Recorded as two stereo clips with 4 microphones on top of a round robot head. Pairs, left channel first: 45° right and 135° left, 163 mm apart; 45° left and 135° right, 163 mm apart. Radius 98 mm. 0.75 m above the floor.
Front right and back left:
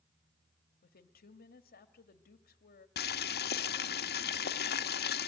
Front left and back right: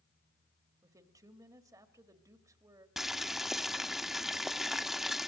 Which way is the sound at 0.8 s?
65° right.